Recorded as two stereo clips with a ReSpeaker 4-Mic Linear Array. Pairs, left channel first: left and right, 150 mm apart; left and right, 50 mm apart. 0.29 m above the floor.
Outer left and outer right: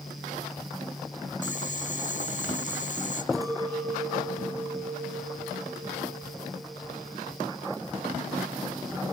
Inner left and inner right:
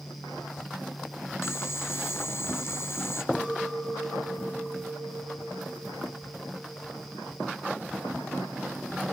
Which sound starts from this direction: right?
A clink, at 3.3 s.